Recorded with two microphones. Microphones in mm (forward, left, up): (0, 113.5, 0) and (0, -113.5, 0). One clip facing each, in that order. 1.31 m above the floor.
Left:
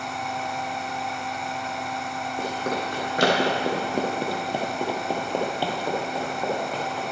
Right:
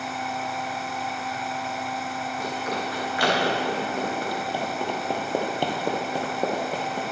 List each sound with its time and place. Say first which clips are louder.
2.4 s running footsteps: left 3 dB; 50° left (ahead or behind), 3 m; by 7.0 s 45° right (ahead or behind), 2 m